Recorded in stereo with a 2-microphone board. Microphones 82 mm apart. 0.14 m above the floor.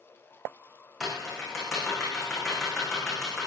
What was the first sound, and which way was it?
Typing on a keyboard, centre (ahead or behind).